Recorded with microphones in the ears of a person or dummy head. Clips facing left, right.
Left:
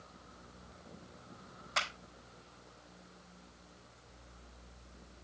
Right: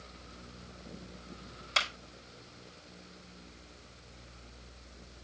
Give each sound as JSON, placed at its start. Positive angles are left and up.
{"t": 1.8, "sound": "a clap", "side_deg": -70, "distance_m": 5.5}